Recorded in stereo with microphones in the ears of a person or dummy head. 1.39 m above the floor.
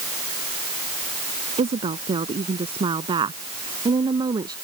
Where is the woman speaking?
30° right (ahead or behind); by 4.5 s 20° right (ahead or behind).